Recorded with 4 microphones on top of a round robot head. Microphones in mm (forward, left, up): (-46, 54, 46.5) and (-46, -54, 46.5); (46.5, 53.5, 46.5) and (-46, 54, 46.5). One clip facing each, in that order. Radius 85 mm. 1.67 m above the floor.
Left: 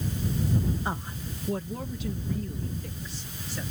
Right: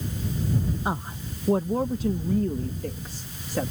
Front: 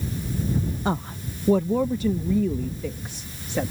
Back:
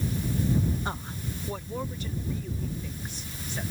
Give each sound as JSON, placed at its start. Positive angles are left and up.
{"t": 0.8, "sound": "a woman speaking", "azimuth_deg": -10}